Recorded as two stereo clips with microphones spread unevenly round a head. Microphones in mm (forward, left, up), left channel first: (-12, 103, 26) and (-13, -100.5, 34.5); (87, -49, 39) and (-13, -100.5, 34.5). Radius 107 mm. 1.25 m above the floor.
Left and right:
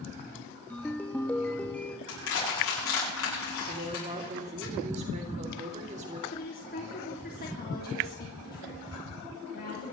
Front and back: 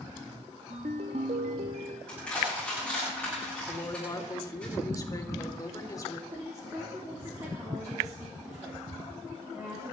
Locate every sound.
0.7 s a ringtone: 175° left, 0.8 m
2.1 s crushing: 110° left, 10 m
3.7 s a woman speaking: 30° right, 3.5 m
6.3 s a woman speaking: 135° left, 3.5 m